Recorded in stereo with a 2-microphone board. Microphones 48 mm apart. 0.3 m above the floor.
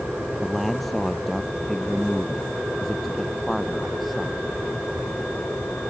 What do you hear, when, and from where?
0.4 s a man speaking: 5° left (ahead or behind); by 4.4 s centre (ahead or behind)